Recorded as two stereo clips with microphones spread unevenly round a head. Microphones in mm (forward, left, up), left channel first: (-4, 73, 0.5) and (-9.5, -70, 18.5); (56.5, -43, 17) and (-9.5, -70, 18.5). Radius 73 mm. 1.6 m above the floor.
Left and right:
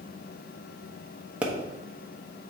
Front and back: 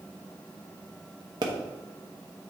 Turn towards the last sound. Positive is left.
turn(degrees=-165)